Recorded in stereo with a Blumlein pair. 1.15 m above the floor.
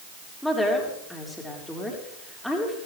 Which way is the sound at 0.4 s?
Straight ahead.